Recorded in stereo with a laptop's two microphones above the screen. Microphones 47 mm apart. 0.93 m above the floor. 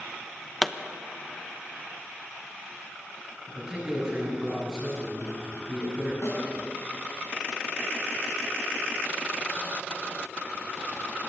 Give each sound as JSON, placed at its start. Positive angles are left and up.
{"t": 0.6, "sound": "a pop", "side_deg": 0, "distance_m": 0.9}
{"t": 3.5, "sound": "a man speaking", "side_deg": -10, "distance_m": 9.0}
{"t": 6.2, "sound": "a snare drum", "side_deg": 70, "distance_m": 7.5}